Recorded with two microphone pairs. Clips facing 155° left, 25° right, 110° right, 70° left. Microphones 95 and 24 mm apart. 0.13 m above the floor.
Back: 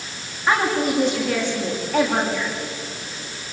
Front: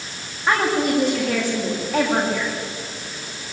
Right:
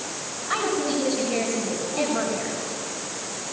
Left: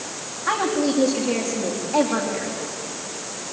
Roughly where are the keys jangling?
No keys jangling in this recording.